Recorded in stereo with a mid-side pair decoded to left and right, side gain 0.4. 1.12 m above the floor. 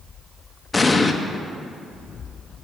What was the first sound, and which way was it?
An explosion, 30° left.